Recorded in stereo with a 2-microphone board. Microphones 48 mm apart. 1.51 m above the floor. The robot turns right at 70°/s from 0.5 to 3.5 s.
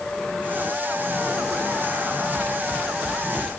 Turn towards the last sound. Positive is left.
No sound to turn to.